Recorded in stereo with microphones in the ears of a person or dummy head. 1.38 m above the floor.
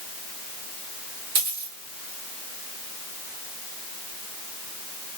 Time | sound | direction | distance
1.4 | a dropped coin | 45° right (ahead or behind) | 1.3 m